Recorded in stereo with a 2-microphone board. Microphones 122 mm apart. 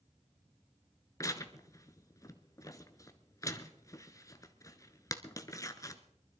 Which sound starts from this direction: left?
Tearing paper, at 1.2 s.